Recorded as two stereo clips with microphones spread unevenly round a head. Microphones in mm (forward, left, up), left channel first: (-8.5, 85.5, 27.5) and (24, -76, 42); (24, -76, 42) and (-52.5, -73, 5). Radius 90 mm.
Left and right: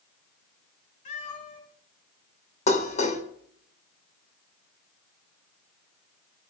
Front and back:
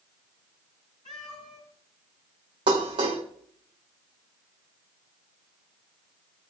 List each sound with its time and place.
1.1 s a cat meowing: 60° left, 5 m
2.7 s dishes clattering: 155° left, 2 m